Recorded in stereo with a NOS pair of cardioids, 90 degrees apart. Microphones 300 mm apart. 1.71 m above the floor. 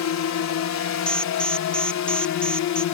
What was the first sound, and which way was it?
A drone, 65° left.